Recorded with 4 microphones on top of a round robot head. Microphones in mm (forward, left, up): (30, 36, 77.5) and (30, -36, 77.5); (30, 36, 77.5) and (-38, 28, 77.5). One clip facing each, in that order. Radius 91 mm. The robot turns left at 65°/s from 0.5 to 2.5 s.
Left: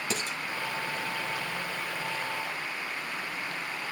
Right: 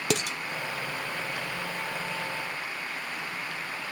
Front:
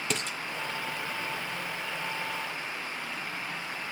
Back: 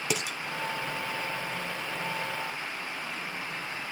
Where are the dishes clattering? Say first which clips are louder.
Right 7 dB, back 2 dB; 90° right, 1.1 m.